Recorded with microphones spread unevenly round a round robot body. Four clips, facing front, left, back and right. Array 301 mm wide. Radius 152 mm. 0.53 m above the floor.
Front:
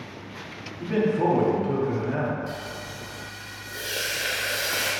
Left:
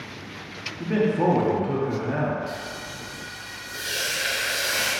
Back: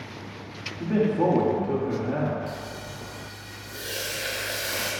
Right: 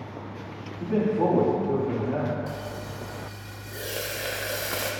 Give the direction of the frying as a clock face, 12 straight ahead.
3 o'clock.